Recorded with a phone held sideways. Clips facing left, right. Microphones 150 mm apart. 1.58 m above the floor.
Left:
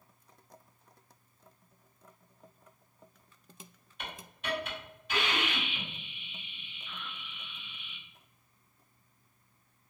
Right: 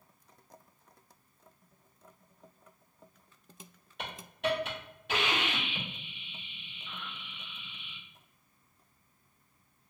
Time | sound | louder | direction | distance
4.0 | a hiss | right 8 dB | 70° right (ahead or behind) | 1.7 m